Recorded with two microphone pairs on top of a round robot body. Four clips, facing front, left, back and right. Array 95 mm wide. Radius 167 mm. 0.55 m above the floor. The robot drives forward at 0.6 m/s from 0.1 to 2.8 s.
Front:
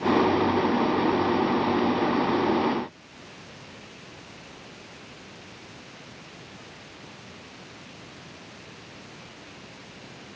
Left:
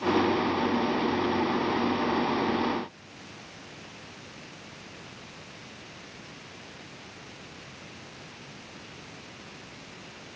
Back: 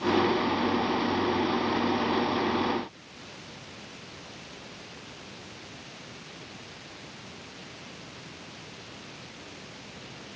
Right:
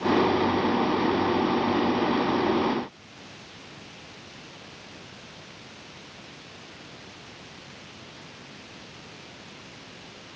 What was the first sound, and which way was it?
Only background noise.